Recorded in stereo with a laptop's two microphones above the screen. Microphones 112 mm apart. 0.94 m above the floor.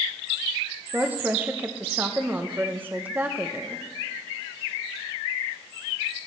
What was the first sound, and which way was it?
A woman speaking, 15° right (ahead or behind).